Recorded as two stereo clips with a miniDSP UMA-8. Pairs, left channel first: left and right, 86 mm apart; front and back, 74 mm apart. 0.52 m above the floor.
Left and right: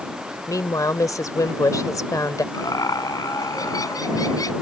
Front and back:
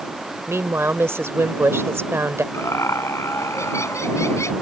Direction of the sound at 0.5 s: 130° left.